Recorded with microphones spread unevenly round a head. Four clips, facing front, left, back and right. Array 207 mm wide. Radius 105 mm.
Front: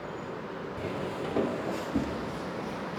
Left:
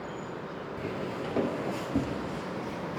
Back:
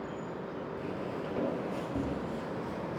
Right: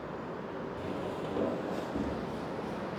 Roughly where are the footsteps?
Ahead left.